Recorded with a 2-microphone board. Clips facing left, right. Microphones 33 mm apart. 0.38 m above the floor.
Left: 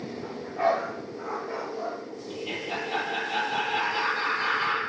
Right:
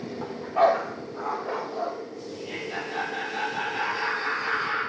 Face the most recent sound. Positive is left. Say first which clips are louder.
# left 3 dB
turn(degrees=40)  # may be behind; listen again after turning